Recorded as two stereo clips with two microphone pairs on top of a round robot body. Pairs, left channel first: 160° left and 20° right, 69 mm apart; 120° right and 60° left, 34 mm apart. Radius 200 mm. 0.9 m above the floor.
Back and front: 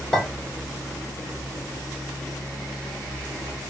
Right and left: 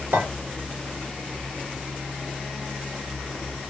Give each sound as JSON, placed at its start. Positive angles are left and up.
{"t": 0.1, "sound": "a clink", "azimuth_deg": 75, "distance_m": 1.8}